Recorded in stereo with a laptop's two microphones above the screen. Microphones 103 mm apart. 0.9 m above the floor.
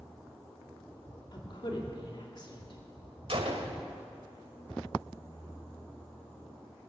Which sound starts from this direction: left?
A woman speaking, at 1.3 s.